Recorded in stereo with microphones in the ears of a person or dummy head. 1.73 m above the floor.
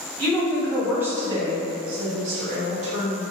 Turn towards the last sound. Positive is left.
turn(degrees=-45)  # may be behind; listen again after turning